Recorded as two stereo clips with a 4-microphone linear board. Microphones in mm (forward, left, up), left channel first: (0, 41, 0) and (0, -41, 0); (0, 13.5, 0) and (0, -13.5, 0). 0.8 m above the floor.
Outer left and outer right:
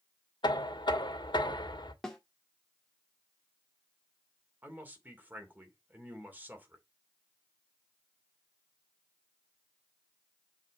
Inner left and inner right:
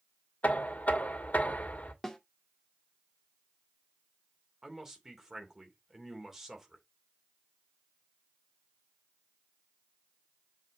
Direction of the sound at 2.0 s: 5° left (ahead or behind).